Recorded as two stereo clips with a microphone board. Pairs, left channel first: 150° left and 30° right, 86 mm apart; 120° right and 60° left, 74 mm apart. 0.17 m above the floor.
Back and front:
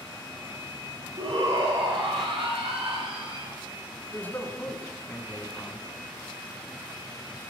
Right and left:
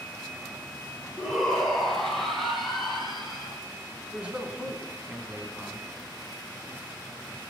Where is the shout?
35° right, 3.5 m; by 3.5 s 30° right, 5.5 m.